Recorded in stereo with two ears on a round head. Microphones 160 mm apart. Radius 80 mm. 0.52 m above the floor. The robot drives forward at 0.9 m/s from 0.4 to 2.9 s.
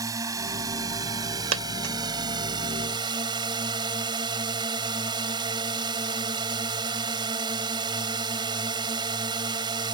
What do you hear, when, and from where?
0.0 s a drone: 20° right (ahead or behind); by 9.9 s 25° right (ahead or behind)
1.5 s a dropped coin: 80° right; by 1.9 s 60° right (ahead or behind)